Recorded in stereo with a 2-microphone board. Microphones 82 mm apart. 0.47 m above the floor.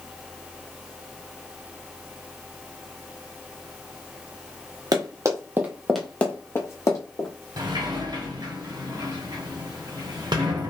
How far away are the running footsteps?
About 0.9 m.